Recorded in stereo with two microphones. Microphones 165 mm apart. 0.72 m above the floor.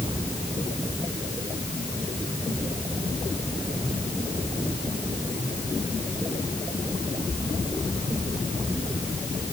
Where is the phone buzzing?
No phone buzzing in this recording.